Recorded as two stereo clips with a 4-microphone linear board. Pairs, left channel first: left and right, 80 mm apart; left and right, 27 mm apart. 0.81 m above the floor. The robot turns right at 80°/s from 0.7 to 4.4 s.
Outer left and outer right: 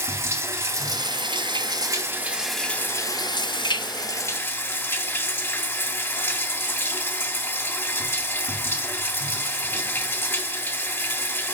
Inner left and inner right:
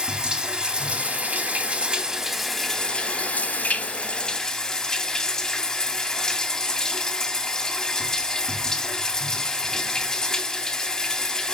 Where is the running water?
145° right, 1.8 m; by 11.5 s 150° left, 1.8 m.